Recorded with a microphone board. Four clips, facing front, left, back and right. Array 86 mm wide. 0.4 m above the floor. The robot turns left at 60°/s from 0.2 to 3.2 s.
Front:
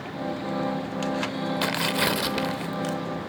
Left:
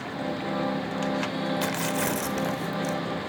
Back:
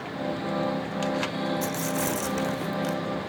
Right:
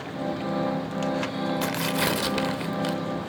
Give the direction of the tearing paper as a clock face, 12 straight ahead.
12 o'clock.